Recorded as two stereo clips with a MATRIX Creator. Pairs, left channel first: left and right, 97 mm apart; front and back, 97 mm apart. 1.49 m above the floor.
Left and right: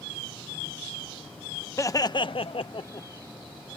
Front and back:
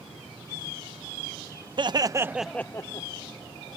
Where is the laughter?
145° left; by 3.1 s 40° left.